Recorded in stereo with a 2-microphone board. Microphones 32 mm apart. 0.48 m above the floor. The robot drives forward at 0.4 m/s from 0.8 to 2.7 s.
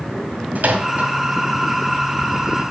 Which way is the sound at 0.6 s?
65° right (ahead or behind).